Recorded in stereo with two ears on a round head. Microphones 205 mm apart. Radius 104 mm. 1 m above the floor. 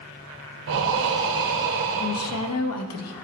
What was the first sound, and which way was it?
Breathing, 60° right (ahead or behind).